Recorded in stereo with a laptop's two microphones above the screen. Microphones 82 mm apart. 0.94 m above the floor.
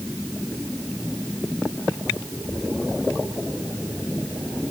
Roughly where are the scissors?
I don't hear scissors.